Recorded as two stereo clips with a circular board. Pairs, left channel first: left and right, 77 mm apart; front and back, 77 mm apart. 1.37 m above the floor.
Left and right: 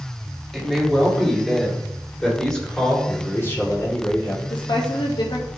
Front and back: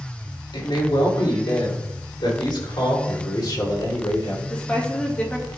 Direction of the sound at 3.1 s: 30° left.